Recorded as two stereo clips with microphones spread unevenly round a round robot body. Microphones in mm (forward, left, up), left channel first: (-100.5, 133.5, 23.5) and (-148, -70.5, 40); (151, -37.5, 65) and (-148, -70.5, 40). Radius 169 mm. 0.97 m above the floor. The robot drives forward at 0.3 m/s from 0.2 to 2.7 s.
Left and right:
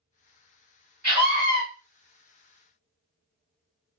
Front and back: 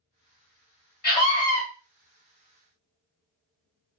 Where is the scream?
55° right, 1.7 m; by 1.6 s 60° right, 1.6 m.